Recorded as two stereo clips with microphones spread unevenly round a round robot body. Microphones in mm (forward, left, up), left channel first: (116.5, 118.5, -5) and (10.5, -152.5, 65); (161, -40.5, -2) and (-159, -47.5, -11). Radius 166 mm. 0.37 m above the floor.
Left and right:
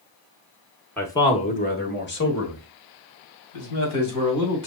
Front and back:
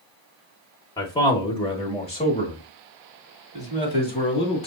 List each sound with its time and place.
1.0 s a man speaking: 60° left, 1.0 m; by 4.7 s 75° left, 3 m